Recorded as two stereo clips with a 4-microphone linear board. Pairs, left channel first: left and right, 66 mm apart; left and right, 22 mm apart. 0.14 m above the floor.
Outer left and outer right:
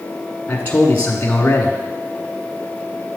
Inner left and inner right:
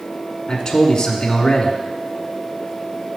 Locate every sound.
0.5 s a man speaking: 25° left (ahead or behind), 1.2 m